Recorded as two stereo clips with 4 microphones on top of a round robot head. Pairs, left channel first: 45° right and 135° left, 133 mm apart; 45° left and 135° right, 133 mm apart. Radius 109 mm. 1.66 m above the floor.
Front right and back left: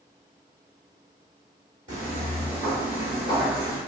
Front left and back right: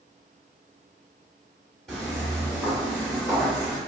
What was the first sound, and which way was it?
Footsteps, 130° left.